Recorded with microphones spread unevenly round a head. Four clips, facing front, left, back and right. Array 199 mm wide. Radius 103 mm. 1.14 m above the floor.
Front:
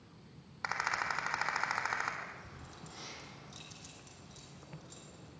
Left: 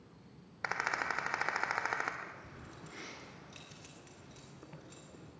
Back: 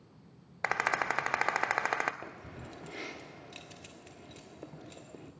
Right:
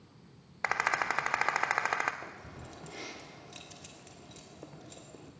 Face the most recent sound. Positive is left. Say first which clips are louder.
# right 3 dB, back 4 dB
turn(degrees=-165)